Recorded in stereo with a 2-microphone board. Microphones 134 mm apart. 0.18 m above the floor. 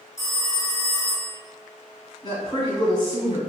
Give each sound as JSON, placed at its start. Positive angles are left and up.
{"t": 0.2, "sound": "a phone ringing", "side_deg": 25, "distance_m": 0.7}
{"t": 2.2, "sound": "a woman speaking", "side_deg": 25, "distance_m": 1.5}